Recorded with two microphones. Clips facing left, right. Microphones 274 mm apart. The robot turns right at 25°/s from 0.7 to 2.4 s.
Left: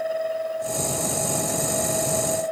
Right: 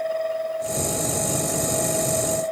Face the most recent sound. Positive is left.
No sound to turn to.